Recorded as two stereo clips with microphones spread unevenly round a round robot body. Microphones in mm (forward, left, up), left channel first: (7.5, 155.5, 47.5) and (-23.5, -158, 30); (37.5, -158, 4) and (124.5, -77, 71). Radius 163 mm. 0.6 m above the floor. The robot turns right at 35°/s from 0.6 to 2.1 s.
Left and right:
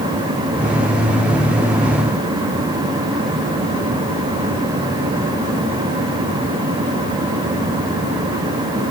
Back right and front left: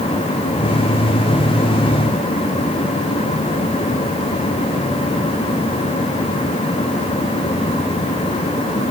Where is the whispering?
No whispering in this recording.